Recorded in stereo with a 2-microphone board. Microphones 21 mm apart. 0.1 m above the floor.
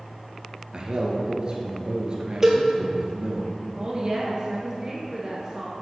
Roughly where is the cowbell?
Centre.